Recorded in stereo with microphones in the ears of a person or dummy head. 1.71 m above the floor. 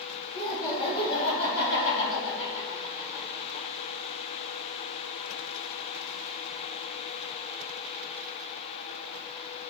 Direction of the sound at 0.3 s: 35° left (ahead or behind).